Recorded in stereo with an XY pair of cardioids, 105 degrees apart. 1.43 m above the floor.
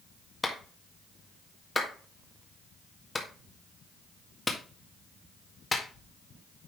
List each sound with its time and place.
0.4 s a clap: 20° left, 1.8 m